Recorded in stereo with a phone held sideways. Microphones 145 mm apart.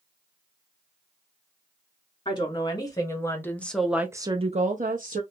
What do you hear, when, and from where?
2.2 s a woman speaking: 30° left (ahead or behind), 1.5 m; by 5.2 s 70° right (ahead or behind), 0.8 m